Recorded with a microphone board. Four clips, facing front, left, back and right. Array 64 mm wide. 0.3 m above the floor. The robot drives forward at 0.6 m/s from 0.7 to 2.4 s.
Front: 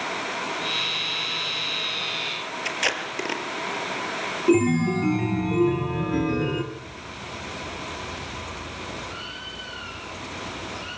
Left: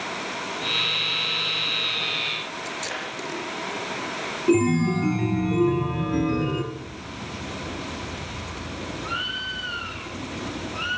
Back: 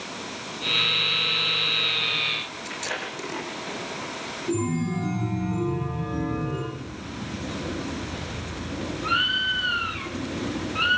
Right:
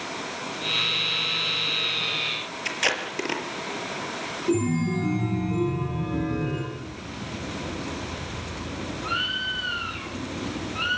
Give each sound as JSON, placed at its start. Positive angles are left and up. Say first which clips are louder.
{"t": 2.6, "sound": "tape being pulled", "louder": "right 8 dB, front 6 dB", "azimuth_deg": -45, "distance_m": 5.5}
{"t": 4.5, "sound": "a chime", "louder": "left 4 dB, front 7 dB", "azimuth_deg": 25, "distance_m": 3.5}
{"t": 6.7, "sound": "a bird", "louder": "even, back 2 dB", "azimuth_deg": -175, "distance_m": 2.5}